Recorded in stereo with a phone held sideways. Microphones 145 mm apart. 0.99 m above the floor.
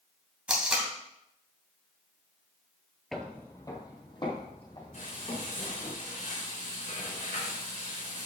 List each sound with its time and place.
0.5 s tape being pulled: 5° right (ahead or behind), 2.5 m
3.1 s footsteps: centre (ahead or behind), 1.2 m; by 5.9 s 45° left (ahead or behind), 5 m
4.9 s frying: 70° left (ahead or behind), 3.5 m